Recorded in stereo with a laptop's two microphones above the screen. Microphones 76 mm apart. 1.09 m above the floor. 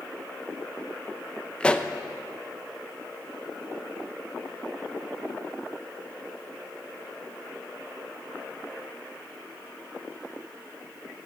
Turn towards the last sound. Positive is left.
turn(degrees=15)  # may be behind; listen again after turning